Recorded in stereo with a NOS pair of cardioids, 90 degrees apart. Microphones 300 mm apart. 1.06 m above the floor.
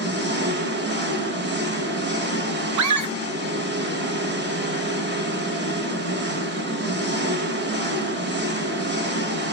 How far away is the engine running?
About 1.0 m.